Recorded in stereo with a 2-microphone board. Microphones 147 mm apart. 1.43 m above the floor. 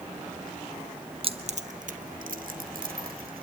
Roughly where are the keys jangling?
Right.